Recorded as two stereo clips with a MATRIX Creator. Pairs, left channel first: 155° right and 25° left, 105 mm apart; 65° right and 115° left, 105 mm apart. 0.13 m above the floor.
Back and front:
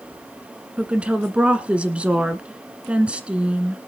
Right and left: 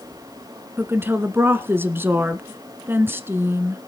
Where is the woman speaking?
85° left, 1.1 m.